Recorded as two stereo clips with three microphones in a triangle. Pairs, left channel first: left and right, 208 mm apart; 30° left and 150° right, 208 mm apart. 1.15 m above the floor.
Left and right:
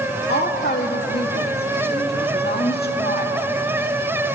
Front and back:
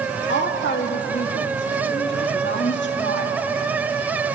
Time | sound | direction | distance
0.3 | a woman speaking | 55° left | 2 m